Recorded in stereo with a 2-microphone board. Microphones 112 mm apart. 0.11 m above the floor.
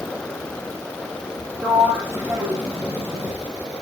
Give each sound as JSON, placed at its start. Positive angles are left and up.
{"t": 1.6, "sound": "a sliding door", "side_deg": -20, "distance_m": 1.1}